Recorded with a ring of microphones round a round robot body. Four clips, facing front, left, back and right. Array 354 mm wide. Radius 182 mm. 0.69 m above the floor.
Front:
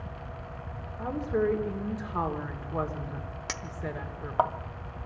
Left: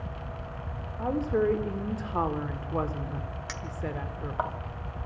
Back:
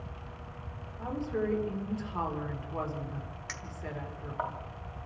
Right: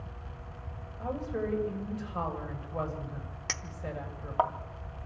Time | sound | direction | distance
1.0 | a woman speaking | 70° left | 2 m
3.5 | a clink | 25° right | 0.7 m